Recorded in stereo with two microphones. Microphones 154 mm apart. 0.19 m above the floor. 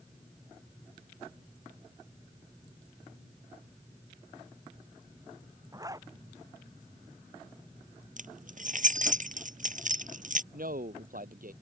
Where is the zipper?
20° right (ahead or behind).